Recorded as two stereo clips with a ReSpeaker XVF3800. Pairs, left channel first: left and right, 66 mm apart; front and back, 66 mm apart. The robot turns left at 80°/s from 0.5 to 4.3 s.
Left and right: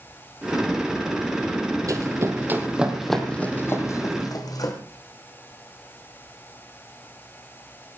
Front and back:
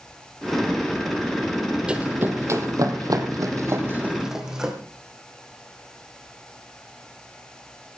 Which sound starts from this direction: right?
Running footsteps, at 1.9 s.